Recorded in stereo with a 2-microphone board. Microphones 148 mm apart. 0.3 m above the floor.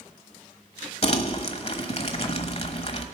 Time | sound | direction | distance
1.0 | crumpling | 45° left (ahead or behind) | 1.1 m